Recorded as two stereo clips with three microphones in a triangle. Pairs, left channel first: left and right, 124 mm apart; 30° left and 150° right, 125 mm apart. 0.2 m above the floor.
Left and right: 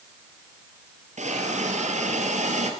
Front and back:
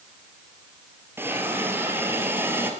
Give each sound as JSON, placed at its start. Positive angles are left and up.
{"t": 1.2, "sound": "a hiss", "azimuth_deg": -80, "distance_m": 2.0}